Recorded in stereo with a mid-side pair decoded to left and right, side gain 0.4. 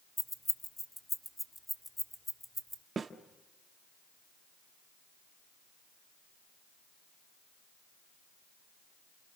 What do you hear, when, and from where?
0.2 s keys jangling: 20° left, 1.2 m; by 2.8 s 10° left, 2.5 m
3.0 s a snare drum: 45° right, 1.3 m